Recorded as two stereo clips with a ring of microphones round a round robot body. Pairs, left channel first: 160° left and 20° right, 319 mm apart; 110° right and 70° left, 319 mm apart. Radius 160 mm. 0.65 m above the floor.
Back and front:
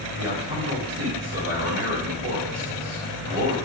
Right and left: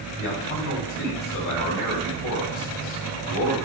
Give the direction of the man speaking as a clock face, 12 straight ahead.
2 o'clock.